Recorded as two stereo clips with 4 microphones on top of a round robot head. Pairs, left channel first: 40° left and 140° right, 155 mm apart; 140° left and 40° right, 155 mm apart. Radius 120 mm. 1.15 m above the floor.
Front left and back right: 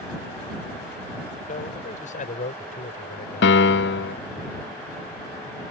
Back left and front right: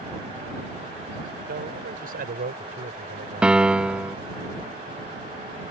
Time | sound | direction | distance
1.5 | a man speaking | 5° right | ?
3.4 | a piano | 45° left | ?